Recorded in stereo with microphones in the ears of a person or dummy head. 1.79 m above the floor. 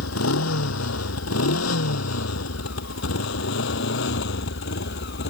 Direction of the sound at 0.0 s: 80° left.